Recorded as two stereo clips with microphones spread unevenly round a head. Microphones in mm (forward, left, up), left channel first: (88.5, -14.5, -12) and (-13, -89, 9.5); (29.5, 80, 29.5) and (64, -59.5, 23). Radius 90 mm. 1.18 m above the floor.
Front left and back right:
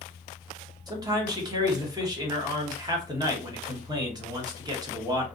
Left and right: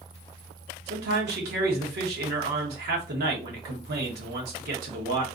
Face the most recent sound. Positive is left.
turn(degrees=-80)